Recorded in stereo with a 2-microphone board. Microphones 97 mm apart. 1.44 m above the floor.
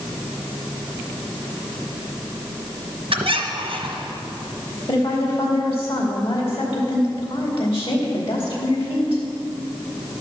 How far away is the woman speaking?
About 2.5 m.